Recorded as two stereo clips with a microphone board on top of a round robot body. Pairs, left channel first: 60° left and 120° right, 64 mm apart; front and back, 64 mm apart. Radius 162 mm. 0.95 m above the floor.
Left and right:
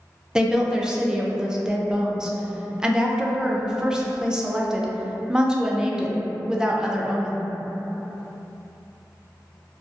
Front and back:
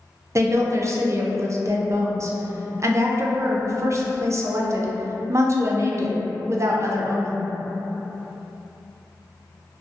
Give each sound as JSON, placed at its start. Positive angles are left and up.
{"t": 0.3, "sound": "a woman speaking", "azimuth_deg": 165, "distance_m": 0.5}